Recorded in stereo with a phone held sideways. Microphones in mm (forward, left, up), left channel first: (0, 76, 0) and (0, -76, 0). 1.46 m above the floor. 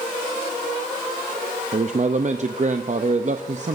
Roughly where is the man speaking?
Right.